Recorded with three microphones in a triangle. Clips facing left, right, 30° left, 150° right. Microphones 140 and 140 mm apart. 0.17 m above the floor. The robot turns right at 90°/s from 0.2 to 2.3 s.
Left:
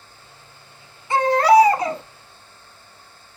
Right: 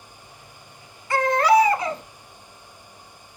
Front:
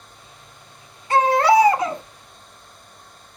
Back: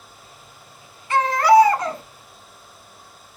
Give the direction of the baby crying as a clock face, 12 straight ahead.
11 o'clock.